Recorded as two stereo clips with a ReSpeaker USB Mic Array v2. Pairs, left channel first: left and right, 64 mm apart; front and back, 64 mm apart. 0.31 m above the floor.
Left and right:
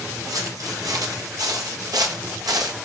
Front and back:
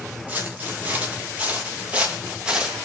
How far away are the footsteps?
About 5 m.